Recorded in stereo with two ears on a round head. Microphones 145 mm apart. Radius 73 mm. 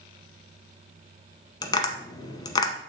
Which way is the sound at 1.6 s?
25° left (ahead or behind).